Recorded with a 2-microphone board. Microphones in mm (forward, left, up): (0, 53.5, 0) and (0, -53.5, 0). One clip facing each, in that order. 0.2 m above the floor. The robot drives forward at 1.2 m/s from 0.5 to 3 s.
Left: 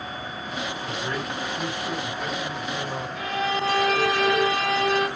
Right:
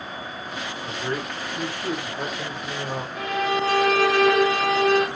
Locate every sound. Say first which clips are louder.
0.8 s a man speaking: right 4 dB; 30° right (ahead or behind), 9.5 m; by 3.0 s 40° right (ahead or behind), 7.5 m
3.1 s a violin: right 3 dB; 65° right (ahead or behind), 7.5 m